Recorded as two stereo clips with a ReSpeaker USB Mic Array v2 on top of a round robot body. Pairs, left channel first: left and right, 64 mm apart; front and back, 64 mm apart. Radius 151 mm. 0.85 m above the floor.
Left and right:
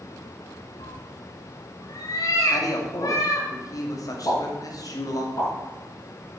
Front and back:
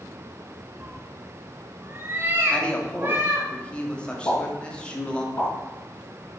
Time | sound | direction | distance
0.8 | a cat meowing | 110° left | 0.7 m
2.5 | a man speaking | 75° left | 3 m
4.2 | a pop | 55° left | 6 m